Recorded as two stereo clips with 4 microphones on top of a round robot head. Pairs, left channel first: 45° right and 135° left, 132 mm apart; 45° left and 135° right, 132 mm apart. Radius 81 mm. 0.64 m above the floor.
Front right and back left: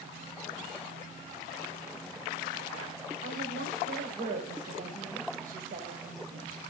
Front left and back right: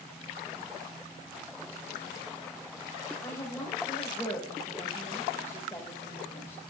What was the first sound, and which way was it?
A woman speaking, 115° left.